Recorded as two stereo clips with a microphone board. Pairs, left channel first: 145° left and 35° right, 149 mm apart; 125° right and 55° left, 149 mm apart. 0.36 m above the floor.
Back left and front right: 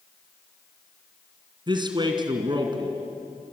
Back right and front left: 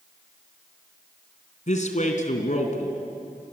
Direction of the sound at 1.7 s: 90° right.